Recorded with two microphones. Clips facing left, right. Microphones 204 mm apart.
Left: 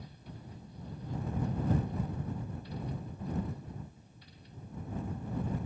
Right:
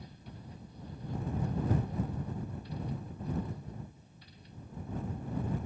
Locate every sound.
Only background noise.